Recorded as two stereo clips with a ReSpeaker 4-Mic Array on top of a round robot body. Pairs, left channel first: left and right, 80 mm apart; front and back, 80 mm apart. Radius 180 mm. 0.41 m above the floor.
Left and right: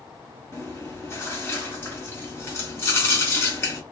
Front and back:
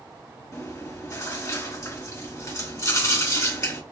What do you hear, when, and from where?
0.5 s chewing: 35° left, 1.9 m